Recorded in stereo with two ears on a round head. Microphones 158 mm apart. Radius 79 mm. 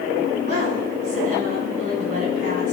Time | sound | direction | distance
0.5 | a woman speaking | 45° right (ahead or behind) | 6.5 m